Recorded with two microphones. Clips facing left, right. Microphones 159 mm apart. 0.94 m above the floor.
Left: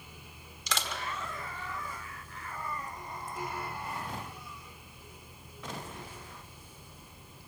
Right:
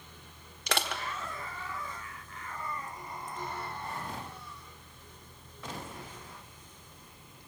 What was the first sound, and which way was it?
Crushing, 65° right (ahead or behind).